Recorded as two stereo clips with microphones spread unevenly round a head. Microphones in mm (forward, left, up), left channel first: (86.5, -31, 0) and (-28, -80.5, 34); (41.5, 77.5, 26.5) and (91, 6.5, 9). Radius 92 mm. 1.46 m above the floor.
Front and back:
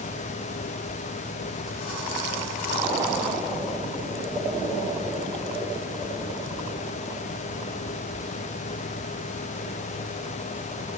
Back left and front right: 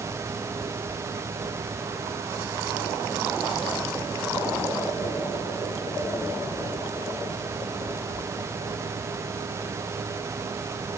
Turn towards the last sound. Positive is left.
No sound to turn to.